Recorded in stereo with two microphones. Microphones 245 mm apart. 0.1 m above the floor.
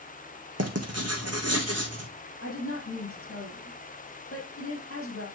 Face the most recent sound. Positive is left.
turn(degrees=60)  # may be behind; listen again after turning